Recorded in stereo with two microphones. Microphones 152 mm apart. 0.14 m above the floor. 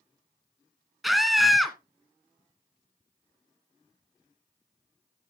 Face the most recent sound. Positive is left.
turn(degrees=0)  # may be behind; listen again after turning